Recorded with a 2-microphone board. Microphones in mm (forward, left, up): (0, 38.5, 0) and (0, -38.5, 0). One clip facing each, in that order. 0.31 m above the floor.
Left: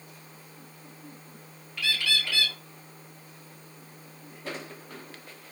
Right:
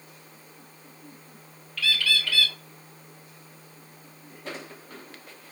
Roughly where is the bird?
Centre.